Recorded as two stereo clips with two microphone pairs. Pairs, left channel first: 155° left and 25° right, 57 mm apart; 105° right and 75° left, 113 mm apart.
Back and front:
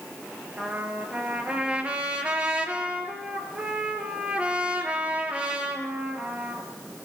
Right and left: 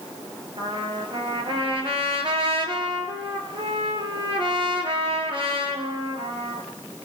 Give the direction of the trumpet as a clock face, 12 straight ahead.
11 o'clock.